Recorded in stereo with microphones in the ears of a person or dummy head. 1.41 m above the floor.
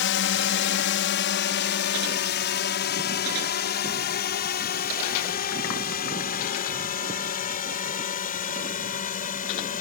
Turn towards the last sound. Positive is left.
turn(degrees=35)  # may be behind; listen again after turning